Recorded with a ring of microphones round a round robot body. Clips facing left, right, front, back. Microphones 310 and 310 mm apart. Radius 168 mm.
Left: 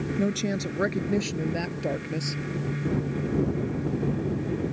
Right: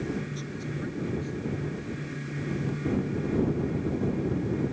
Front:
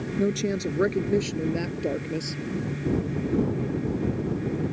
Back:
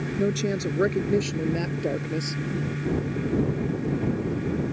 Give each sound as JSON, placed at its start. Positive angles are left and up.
{"t": 0.2, "sound": "a woman speaking", "azimuth_deg": 85}